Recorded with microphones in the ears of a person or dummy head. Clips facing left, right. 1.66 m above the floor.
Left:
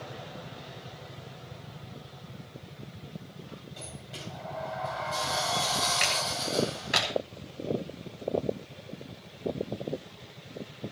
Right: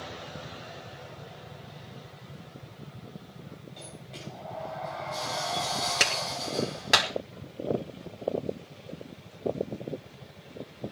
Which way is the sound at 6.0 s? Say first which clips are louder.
Even; 85° right.